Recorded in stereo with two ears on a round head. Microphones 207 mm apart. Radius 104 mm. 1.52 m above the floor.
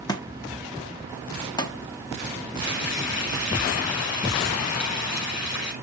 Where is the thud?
15° left (ahead or behind), 1.3 m.